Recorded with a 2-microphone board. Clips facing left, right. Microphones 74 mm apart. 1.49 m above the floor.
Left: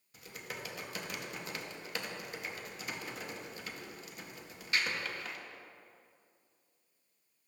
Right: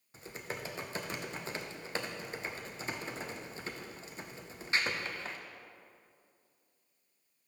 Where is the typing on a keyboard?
30° right (ahead or behind), 0.6 m.